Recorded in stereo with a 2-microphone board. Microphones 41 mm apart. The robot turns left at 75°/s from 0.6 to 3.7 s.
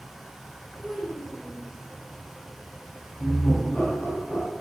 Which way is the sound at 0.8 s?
140° left.